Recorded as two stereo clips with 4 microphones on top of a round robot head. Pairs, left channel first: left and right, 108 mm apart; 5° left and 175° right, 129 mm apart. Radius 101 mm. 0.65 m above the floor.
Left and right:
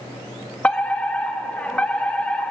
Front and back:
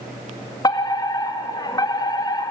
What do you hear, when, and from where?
0.6 s a fire alarm: 20° left, 1.8 m